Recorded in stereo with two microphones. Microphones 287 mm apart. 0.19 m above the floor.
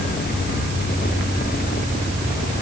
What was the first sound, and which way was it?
Only background noise.